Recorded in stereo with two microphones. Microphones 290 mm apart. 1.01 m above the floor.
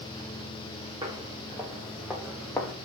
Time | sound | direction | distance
1.0 | footsteps | 15° right (ahead or behind) | 4 m